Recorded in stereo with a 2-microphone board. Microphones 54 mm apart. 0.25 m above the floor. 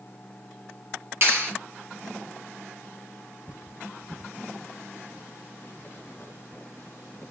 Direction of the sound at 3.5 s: 45° left (ahead or behind).